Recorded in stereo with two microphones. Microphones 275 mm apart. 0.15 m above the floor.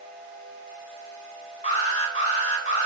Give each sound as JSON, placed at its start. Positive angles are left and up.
{"t": 1.6, "sound": "an alarm", "side_deg": 25, "distance_m": 3.0}